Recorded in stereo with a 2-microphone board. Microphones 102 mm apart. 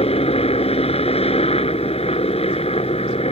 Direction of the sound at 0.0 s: 65° left (ahead or behind).